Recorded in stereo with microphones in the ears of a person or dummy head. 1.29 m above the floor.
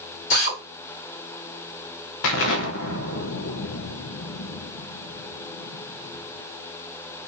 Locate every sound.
0.3 s a drill: 60° left (ahead or behind), 2.5 m
2.2 s an explosion: 65° left (ahead or behind), 0.6 m